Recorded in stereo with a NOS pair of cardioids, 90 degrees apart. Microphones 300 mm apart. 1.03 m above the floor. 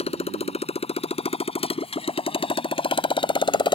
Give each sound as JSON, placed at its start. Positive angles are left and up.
{"t": 0.0, "sound": "a motorcycle", "azimuth_deg": 20}